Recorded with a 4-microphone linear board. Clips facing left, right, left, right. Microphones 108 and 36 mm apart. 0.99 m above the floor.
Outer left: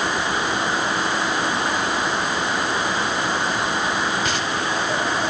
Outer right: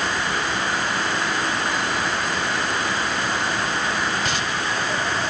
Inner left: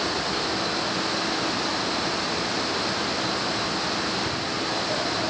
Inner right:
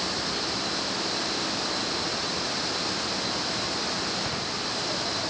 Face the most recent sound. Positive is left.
No sound to turn to.